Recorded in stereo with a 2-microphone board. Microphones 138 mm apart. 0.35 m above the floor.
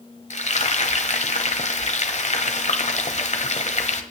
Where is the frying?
55° left (ahead or behind), 1.1 m.